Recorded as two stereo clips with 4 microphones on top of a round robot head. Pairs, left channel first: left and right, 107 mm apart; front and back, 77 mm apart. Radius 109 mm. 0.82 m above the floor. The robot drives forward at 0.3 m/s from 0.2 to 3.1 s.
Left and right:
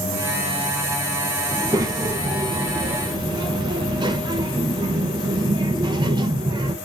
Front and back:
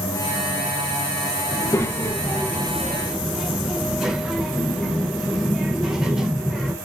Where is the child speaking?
40° right, 0.7 m; by 6.8 s 100° right, 0.6 m.